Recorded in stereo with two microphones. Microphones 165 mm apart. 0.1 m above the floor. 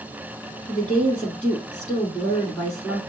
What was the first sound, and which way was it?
A woman speaking, 10° left (ahead or behind).